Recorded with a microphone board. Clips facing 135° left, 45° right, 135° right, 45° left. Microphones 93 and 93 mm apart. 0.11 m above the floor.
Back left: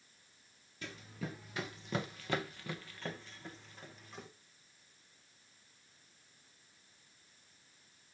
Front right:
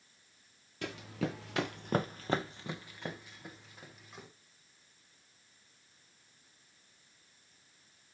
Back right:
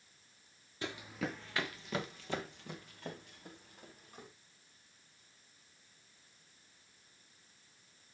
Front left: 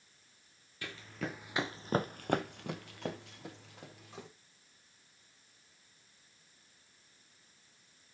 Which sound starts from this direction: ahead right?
Running footsteps, at 0.8 s.